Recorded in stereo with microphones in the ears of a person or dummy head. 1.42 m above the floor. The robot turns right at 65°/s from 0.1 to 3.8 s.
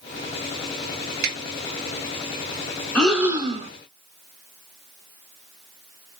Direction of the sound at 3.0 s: 175° left.